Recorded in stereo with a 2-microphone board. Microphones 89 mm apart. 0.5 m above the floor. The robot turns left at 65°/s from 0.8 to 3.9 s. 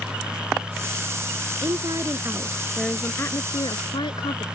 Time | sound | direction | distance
1.6 | a woman speaking | 105° right | ?